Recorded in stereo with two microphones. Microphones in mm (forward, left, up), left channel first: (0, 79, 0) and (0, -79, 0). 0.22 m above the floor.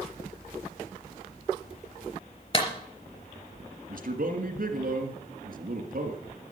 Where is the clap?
35° left (ahead or behind), 3.5 m.